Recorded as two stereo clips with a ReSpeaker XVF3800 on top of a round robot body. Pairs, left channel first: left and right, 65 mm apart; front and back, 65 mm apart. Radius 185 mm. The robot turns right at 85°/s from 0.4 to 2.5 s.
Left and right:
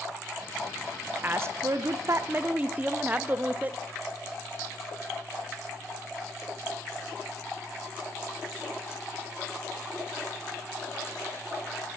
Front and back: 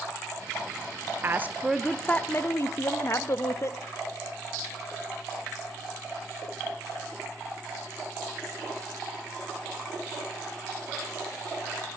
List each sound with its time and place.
1.2 s a woman speaking: 135° right, 0.5 m; by 3.8 s 30° right, 0.5 m